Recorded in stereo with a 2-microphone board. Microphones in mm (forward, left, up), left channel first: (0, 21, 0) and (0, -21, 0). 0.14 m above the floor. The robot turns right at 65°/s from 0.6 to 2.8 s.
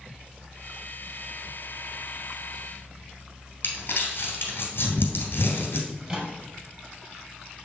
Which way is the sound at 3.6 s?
60° left (ahead or behind).